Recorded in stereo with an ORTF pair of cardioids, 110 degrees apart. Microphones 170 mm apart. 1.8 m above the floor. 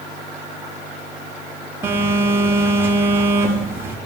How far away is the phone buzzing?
About 3 m.